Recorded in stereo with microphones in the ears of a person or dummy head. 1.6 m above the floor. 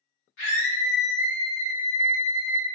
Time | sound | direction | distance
0.4 | a scream | 75° left (ahead or behind) | 1.5 m